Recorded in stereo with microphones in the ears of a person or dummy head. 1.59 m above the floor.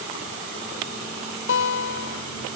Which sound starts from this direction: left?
A guitar, at 1.5 s.